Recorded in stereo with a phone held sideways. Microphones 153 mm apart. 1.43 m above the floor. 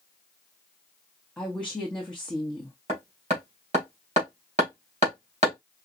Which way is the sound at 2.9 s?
45° right (ahead or behind).